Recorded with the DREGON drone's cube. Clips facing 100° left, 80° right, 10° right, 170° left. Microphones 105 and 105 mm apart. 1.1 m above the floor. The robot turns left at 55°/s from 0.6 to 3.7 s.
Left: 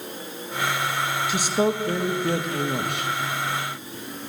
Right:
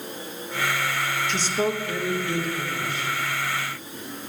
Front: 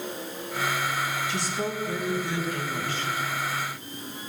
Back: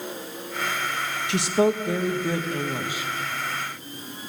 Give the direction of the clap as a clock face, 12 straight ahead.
No clap in this recording.